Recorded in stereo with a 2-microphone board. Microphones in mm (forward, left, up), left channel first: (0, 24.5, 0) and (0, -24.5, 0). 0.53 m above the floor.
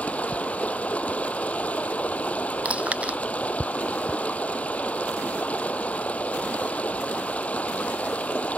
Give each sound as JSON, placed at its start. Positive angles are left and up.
{"t": 0.0, "sound": "running water", "side_deg": 25}
{"t": 2.6, "sound": "chewing", "side_deg": -30}